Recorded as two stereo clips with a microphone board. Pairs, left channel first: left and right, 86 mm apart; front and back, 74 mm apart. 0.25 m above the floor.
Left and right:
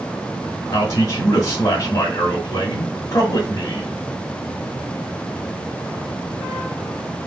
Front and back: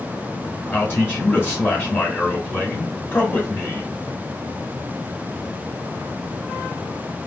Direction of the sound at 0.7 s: 50° left.